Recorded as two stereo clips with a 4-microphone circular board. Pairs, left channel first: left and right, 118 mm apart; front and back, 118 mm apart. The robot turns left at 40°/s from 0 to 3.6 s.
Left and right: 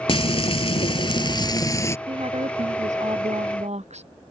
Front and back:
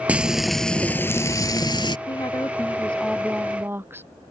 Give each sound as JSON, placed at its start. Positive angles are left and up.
{"t": 0.1, "sound": "frying", "azimuth_deg": 105}
{"t": 2.1, "sound": "a woman speaking", "azimuth_deg": -50}